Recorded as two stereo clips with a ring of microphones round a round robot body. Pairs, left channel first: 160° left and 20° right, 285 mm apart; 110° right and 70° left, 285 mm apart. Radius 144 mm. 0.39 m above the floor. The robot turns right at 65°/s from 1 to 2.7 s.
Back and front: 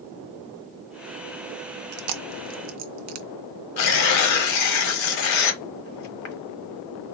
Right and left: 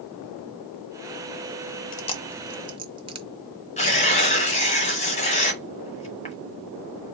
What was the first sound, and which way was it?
Chewing, 55° right.